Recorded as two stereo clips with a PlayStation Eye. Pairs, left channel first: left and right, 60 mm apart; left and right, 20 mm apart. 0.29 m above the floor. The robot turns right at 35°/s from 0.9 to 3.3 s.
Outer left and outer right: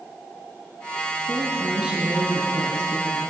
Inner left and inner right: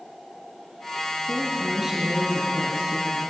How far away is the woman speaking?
About 5 m.